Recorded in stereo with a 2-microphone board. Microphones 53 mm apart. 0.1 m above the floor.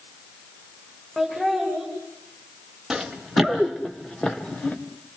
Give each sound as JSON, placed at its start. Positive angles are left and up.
{"t": 1.2, "sound": "laughter", "side_deg": 5, "distance_m": 8.5}
{"t": 2.9, "sound": "running footsteps", "side_deg": -10, "distance_m": 2.5}